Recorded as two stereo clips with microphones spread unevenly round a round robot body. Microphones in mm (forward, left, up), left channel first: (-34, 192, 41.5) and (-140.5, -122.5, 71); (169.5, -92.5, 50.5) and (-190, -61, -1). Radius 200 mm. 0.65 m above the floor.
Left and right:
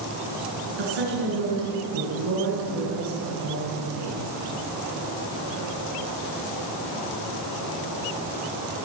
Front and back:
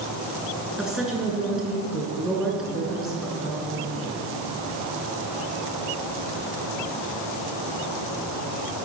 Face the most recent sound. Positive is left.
turn(degrees=-95)